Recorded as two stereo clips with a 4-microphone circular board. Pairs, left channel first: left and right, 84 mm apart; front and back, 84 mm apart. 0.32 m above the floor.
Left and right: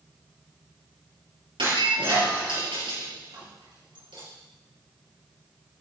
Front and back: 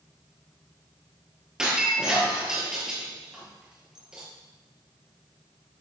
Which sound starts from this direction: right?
Breaking glass, at 1.6 s.